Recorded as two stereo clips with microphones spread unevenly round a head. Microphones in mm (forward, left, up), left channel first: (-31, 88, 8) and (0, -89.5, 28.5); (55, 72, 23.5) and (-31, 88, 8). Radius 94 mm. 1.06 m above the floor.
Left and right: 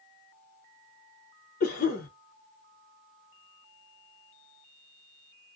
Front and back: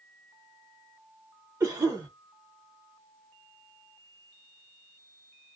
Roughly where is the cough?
Behind left.